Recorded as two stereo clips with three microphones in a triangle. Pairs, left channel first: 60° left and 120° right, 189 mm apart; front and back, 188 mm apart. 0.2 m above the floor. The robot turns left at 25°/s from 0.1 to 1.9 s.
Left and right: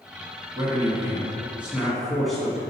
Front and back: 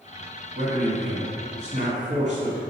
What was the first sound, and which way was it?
A man speaking, 175° right.